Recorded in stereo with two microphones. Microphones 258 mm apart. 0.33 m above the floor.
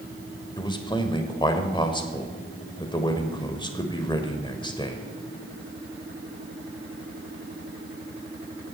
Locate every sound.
0.6 s a man speaking: 20° left (ahead or behind), 1.2 m